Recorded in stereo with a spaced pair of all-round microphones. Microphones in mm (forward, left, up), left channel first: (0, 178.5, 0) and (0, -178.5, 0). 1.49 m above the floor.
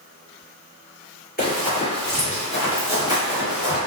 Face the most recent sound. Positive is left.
turn(degrees=-25)  # may be behind; listen again after turning